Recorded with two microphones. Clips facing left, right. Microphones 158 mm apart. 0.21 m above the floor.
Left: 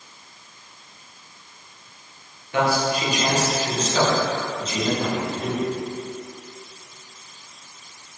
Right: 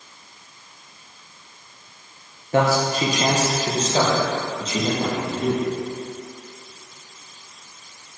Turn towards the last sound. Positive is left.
turn(degrees=-25)  # may be behind; listen again after turning